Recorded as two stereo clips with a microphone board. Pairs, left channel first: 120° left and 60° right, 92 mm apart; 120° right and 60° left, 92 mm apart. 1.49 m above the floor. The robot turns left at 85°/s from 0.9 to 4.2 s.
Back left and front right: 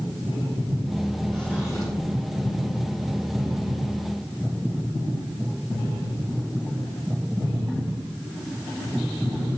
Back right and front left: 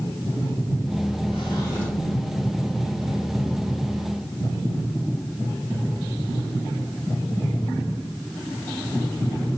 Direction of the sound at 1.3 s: 150° right.